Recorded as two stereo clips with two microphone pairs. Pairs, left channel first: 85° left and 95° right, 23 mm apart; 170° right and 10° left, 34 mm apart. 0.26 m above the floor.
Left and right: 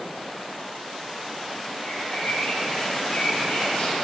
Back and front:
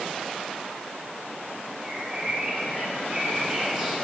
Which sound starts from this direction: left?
A bird, at 1.8 s.